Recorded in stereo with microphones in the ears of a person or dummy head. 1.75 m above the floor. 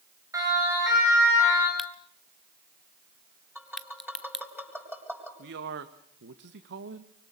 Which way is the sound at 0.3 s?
25° right (ahead or behind).